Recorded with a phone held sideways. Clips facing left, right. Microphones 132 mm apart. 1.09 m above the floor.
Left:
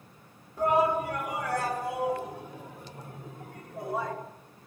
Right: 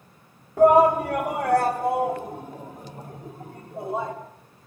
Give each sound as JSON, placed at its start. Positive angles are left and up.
{"t": 0.6, "sound": "a shout", "side_deg": -75, "distance_m": 3.5}